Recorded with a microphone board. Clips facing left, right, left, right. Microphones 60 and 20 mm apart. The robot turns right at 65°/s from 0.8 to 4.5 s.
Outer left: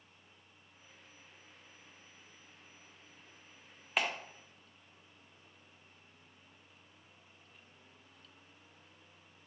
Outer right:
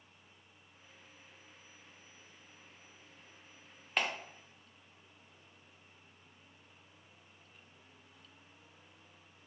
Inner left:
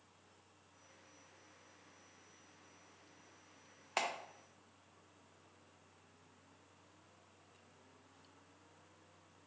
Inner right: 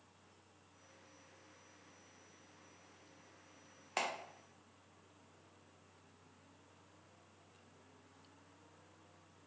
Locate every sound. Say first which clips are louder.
4.0 s a clap: even, inner left 1 dB; centre (ahead or behind), 0.7 m; by 4.1 s 10° left (ahead or behind), 0.7 m